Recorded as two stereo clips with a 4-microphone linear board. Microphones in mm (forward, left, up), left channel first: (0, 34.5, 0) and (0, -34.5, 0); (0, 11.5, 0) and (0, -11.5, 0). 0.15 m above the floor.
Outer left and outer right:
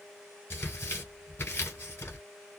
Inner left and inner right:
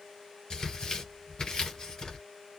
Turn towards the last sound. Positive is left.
turn(degrees=35)  # may be behind; listen again after turning